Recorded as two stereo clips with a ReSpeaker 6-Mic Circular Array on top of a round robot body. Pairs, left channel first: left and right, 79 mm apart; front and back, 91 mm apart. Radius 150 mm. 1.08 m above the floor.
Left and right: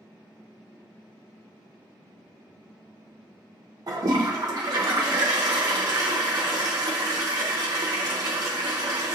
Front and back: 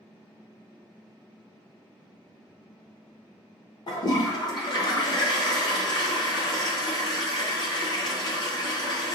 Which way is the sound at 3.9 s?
45° right.